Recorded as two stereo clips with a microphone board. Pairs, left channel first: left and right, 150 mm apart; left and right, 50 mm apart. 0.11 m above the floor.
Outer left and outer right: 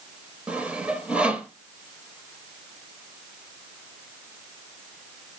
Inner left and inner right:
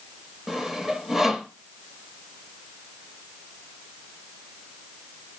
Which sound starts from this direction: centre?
Sawing, at 0.5 s.